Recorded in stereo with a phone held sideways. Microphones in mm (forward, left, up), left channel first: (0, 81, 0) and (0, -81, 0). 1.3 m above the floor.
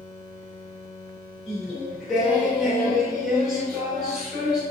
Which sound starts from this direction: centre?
Singing, at 1.5 s.